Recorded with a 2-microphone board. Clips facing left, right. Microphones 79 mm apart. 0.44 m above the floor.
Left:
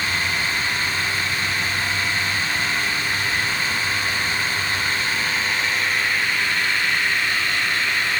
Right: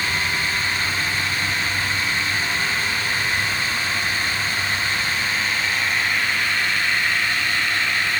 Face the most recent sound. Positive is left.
No sound to turn to.